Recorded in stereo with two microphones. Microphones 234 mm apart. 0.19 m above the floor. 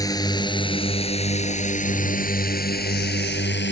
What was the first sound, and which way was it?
A drone, 15° left (ahead or behind).